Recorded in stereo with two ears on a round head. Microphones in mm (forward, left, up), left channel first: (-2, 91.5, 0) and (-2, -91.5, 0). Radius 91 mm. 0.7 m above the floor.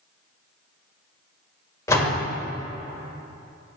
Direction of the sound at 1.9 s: 15° left (ahead or behind).